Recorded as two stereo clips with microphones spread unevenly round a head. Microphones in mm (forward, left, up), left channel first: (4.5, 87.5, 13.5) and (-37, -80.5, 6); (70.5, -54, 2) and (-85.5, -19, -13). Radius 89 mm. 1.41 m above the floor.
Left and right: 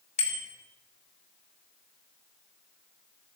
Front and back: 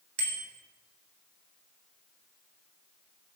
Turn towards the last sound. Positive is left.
turn(degrees=130)